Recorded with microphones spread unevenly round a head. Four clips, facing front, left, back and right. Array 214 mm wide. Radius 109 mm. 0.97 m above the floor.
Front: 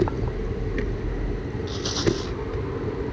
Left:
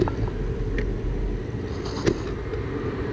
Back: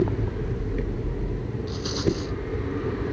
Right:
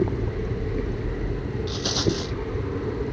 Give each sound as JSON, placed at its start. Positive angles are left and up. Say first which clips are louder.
{"t": 1.7, "sound": "a rattle", "louder": "left 2 dB, front 2 dB", "azimuth_deg": -85}